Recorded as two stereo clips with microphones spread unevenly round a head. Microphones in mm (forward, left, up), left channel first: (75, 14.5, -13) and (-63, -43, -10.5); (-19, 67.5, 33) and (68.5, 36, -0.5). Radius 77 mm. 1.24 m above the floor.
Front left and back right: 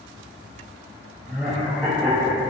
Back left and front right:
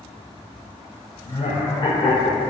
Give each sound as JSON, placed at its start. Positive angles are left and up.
{"t": 1.2, "sound": "laughter", "azimuth_deg": 115, "distance_m": 0.8}